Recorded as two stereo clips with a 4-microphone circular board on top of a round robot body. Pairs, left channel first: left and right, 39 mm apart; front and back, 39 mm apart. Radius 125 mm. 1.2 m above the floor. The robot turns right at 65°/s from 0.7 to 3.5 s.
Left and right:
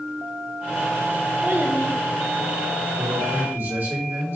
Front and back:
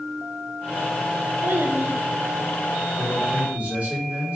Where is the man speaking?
155° right, 3.5 m; by 4.4 s 120° right, 3.5 m.